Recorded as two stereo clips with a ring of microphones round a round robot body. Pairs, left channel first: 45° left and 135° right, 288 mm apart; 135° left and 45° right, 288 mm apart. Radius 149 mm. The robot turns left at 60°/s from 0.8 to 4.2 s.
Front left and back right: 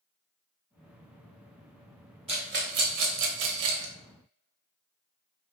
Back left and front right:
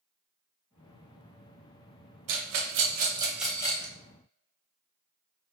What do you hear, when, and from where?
2.3 s a rattle: 65° right, 1.0 m; by 3.9 s 165° right, 1.0 m